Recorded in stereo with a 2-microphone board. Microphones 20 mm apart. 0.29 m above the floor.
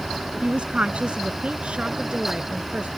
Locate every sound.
0.4 s a woman speaking: 55° right (ahead or behind); by 2.9 s 75° right (ahead or behind)